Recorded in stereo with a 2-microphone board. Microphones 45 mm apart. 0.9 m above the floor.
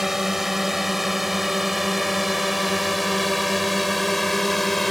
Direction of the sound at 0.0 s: 5° right (ahead or behind).